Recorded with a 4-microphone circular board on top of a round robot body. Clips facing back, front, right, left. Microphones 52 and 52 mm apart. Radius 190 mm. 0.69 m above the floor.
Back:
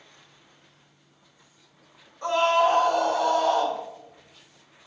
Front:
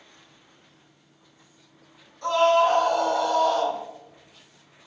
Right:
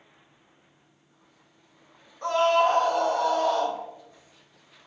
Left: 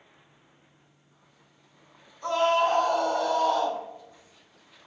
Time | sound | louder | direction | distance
2.2 | a scream | front 2 dB, right 2 dB | 115° right | 5.5 m